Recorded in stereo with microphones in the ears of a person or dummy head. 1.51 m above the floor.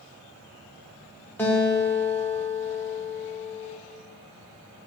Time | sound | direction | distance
1.4 | a guitar | 10° left (ahead or behind) | 1.8 m